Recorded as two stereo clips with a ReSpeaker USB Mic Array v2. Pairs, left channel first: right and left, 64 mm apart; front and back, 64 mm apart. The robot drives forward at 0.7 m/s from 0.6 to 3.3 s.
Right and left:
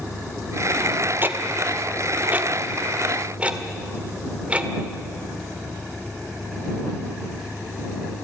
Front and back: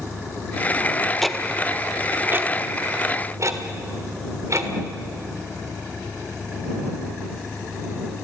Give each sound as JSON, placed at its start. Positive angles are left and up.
{"t": 1.2, "sound": "ticking", "azimuth_deg": 85, "distance_m": 1.1}